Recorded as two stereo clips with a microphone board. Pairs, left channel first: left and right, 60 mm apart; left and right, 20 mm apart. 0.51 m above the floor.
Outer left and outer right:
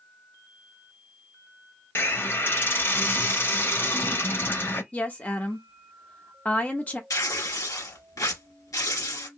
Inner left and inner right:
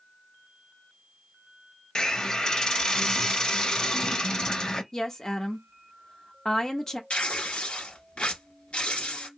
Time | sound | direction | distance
1.9 | a hiss | 40° left (ahead or behind) | 0.6 m
4.9 | a woman speaking | 25° left (ahead or behind) | 0.9 m
7.1 | tearing paper | 75° left (ahead or behind) | 1.4 m